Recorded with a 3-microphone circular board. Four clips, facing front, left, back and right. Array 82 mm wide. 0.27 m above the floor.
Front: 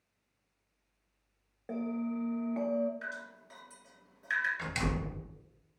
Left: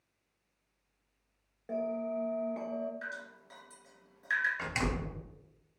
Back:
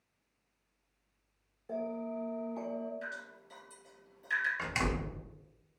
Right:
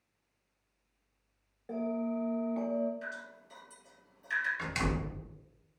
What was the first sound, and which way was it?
A bell, 10° left.